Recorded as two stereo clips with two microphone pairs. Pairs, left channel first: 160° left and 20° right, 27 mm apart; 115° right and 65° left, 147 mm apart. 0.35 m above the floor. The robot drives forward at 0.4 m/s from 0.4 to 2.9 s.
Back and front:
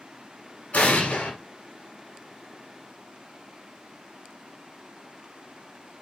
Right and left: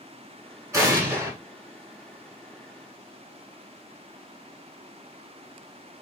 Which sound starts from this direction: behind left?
An explosion, at 0.7 s.